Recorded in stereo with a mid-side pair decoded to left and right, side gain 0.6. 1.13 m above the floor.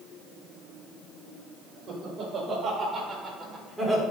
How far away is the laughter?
About 5 m.